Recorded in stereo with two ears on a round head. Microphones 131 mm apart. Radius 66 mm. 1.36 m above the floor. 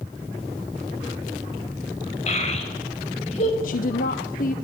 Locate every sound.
2.3 s a child speaking: 50° left (ahead or behind), 5 m
3.6 s a woman speaking: 60° left (ahead or behind), 1.0 m